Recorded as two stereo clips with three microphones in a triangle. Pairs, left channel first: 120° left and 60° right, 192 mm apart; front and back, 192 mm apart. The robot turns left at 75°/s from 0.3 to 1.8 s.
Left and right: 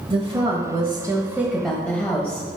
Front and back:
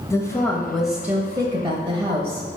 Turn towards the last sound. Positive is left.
turn(degrees=-165)